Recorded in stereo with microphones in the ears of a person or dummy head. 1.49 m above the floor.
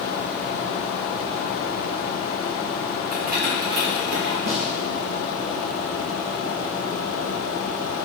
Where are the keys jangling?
50° right (ahead or behind), 1.5 m; by 4.4 s 75° right (ahead or behind), 1.8 m.